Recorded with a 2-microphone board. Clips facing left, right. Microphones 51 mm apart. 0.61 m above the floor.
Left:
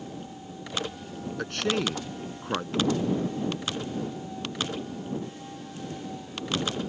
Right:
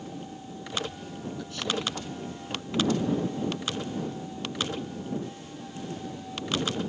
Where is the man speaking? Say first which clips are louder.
Left 5 dB; 55° left (ahead or behind).